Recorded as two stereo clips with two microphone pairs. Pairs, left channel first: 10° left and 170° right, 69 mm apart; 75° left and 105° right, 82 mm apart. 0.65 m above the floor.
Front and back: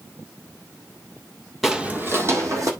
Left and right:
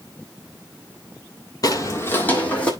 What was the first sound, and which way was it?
Footsteps, 100° left.